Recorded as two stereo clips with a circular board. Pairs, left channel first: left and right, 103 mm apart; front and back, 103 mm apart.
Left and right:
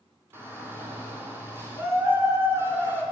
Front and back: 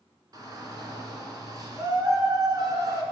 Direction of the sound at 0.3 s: 145° right.